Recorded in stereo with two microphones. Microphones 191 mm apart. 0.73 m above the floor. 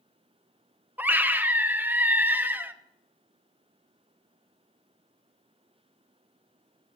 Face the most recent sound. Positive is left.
turn(degrees=-10)  # may be behind; listen again after turning